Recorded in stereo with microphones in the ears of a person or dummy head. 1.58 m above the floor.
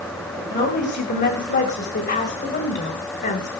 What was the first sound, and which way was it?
A woman speaking, 40° left (ahead or behind).